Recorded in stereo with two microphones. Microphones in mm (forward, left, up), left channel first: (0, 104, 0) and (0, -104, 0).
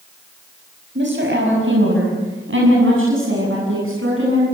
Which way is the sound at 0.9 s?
60° right (ahead or behind).